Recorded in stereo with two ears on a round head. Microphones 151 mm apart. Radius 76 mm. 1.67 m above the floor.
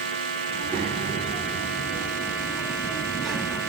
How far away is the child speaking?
About 4.5 m.